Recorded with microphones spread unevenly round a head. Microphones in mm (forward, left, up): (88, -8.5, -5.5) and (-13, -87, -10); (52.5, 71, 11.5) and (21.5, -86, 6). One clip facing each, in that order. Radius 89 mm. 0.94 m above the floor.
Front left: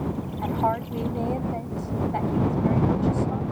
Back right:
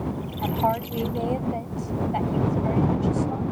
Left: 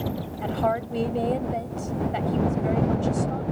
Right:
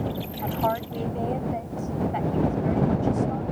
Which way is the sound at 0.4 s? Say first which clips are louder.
Back right 1 dB, left 2 dB; 140° left.